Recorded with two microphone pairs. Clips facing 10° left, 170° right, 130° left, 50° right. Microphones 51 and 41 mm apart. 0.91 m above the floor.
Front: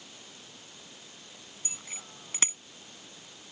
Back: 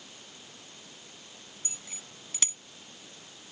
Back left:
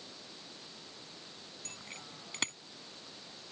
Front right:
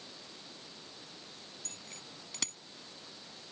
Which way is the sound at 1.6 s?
70° left.